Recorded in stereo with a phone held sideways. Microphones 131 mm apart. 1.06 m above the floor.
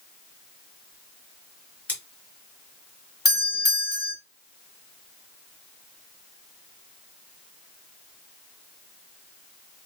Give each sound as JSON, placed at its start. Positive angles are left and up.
{"t": 1.9, "sound": "scissors", "side_deg": 10, "distance_m": 1.6}
{"t": 3.2, "sound": "a doorbell", "side_deg": 30, "distance_m": 1.4}